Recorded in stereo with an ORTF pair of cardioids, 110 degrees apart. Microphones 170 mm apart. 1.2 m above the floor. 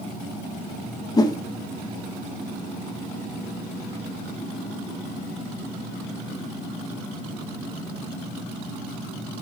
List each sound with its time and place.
1.2 s a whoosh: 20° left, 0.9 m